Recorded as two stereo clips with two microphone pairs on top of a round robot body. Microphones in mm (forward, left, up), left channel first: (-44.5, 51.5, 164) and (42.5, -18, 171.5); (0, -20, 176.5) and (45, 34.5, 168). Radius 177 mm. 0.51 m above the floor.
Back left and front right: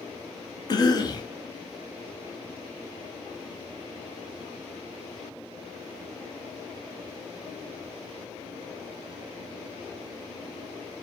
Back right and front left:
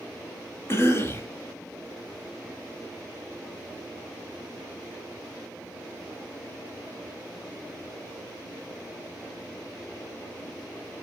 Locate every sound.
0.7 s a cough: 175° left, 1.0 m